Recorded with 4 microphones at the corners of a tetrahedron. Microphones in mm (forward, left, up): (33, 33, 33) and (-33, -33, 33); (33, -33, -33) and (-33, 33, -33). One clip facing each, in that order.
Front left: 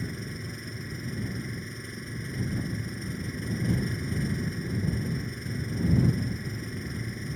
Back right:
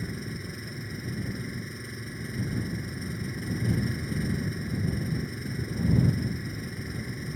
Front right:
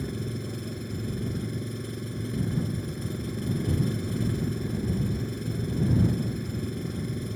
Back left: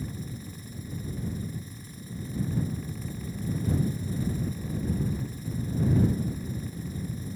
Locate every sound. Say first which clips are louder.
0.0 s an engine running: even, front right 5 dB; 45° right